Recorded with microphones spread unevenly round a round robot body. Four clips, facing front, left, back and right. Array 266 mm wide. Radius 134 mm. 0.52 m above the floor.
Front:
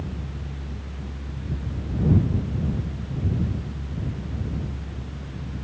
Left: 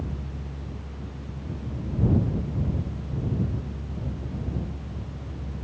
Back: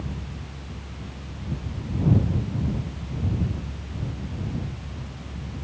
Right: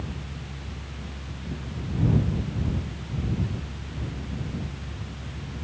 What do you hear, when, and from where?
Only background noise.